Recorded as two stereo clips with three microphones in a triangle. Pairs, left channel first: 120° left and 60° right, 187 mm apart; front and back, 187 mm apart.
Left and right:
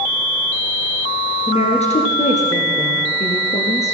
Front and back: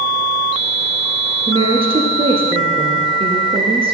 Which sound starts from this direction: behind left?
A woman speaking, at 1.5 s.